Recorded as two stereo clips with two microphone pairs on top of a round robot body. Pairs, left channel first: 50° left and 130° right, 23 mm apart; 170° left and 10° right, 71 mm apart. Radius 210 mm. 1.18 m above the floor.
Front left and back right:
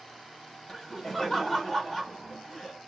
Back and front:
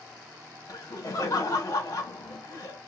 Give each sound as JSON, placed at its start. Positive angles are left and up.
{"t": 0.7, "sound": "laughter", "azimuth_deg": 125, "distance_m": 1.4}